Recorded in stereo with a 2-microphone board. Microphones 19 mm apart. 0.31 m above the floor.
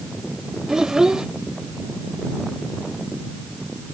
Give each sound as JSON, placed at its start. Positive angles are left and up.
{"t": 0.7, "sound": "a child speaking", "side_deg": -30}